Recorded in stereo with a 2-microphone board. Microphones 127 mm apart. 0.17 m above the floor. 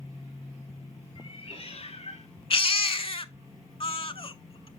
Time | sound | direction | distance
1.1 | a cat meowing | 45° left (ahead or behind) | 1.8 m
2.5 | a baby crying | 45° left (ahead or behind) | 0.5 m